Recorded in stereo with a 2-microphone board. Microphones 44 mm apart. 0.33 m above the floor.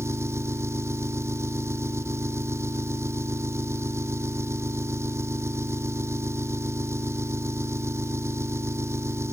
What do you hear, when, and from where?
0.0 s an engine running: 75° right (ahead or behind)